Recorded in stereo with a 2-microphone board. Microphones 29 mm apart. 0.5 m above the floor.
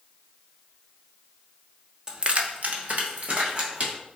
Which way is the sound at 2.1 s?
25° right (ahead or behind).